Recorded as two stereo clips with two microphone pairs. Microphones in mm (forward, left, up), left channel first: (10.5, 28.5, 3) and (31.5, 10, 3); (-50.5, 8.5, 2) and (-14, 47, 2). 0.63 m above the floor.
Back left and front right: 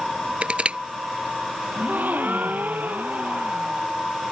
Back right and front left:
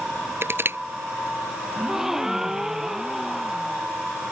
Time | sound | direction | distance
0.4 | crushing | 5° left | ?
1.8 | a gasp | 35° right | ?